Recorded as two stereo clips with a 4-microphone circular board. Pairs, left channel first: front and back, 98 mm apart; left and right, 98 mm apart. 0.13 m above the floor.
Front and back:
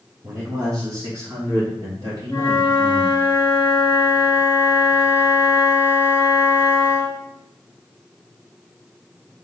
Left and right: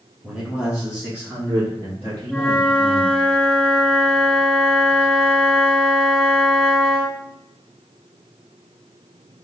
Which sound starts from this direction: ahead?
A flute, at 2.3 s.